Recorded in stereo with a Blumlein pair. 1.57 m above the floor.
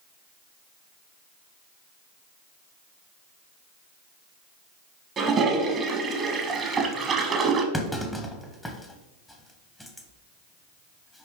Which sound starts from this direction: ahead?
A clunk, at 7.7 s.